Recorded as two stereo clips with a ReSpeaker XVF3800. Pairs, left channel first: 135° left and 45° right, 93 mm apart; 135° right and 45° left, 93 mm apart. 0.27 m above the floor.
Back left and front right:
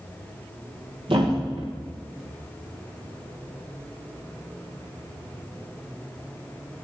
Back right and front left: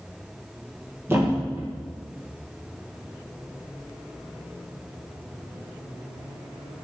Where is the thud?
20° right, 6.5 m.